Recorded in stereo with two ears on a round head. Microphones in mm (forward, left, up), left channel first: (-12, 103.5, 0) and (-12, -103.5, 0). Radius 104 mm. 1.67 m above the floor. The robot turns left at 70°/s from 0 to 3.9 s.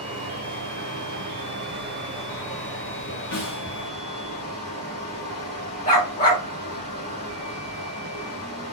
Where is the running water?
5° right, 2 m; by 8.7 s 85° left, 2 m.